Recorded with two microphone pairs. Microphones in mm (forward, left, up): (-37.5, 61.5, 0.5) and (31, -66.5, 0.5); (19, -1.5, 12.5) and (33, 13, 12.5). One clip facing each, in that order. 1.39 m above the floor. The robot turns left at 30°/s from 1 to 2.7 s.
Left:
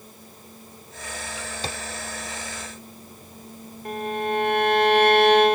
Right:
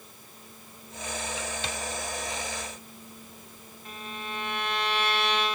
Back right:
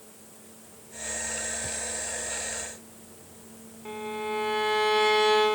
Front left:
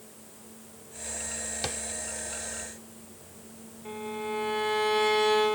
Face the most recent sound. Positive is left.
turn(degrees=145)